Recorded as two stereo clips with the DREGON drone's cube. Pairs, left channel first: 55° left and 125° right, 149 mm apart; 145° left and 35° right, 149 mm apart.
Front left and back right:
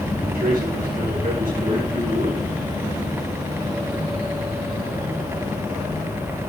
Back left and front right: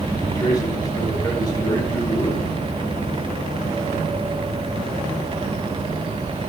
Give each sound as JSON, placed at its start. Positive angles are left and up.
{"t": 0.2, "sound": "a man speaking", "azimuth_deg": -150, "distance_m": 4.5}